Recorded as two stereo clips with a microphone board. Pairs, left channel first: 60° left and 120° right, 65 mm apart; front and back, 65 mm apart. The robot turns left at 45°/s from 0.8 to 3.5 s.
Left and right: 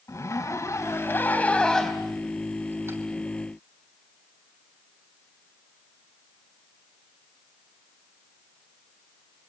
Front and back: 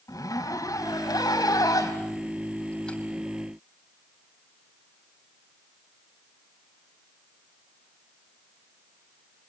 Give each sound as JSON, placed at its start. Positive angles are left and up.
{"t": 0.1, "sound": "a zipper", "azimuth_deg": 20, "distance_m": 3.0}